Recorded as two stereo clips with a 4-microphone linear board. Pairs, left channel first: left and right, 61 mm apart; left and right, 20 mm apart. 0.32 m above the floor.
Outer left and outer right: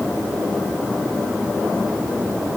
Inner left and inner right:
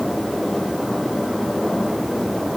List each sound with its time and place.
Only background noise.